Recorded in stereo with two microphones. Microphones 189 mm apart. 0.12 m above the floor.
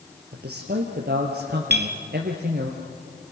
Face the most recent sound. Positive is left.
turn(degrees=-65)  # may be behind; listen again after turning